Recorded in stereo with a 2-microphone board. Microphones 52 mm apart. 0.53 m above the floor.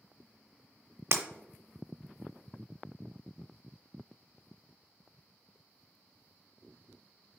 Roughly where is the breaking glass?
Right.